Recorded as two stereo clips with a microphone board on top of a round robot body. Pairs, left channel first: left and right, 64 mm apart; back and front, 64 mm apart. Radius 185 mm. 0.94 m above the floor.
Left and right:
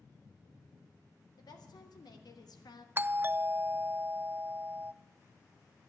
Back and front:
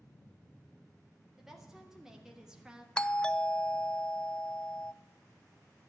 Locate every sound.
1.4 s a woman speaking: 85° left, 3.5 m; by 2.9 s 80° left, 1.7 m
3.0 s a doorbell: 115° right, 0.6 m